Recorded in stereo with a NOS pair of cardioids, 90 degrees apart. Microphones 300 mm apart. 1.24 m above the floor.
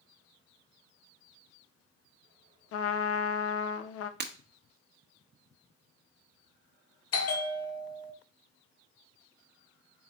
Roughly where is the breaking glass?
Ahead right.